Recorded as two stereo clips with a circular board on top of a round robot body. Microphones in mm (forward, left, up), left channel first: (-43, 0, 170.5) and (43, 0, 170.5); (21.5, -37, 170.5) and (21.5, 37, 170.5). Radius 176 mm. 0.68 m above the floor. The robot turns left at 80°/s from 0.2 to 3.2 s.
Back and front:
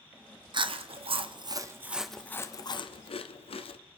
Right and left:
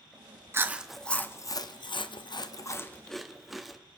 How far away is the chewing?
About 0.9 m.